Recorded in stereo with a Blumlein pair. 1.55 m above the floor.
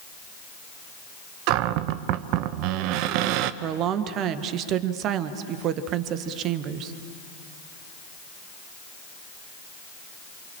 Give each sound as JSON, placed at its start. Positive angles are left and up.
{"t": 1.5, "sound": "a cupboard door", "azimuth_deg": -45, "distance_m": 0.9}
{"t": 3.6, "sound": "a woman speaking", "azimuth_deg": -35, "distance_m": 1.6}